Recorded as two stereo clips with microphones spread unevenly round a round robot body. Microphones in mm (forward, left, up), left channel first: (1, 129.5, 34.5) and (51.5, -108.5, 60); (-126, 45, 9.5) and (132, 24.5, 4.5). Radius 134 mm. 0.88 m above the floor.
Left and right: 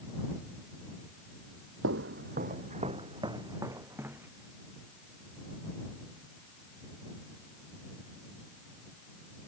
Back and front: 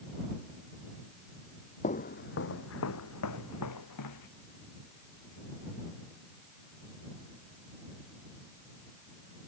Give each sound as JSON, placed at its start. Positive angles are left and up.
{"t": 1.8, "sound": "footsteps", "azimuth_deg": -120}